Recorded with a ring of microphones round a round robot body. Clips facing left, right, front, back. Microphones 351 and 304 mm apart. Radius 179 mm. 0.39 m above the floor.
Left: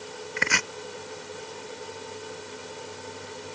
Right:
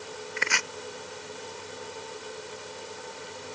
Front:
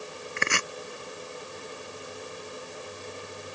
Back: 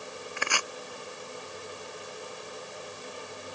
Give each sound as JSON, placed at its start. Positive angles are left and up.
{"t": 0.4, "sound": "chopping", "azimuth_deg": 65}